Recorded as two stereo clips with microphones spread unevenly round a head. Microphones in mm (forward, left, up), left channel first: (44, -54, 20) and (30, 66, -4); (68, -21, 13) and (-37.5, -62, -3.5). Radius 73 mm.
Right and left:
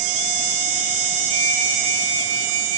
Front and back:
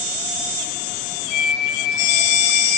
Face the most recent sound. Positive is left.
turn(degrees=55)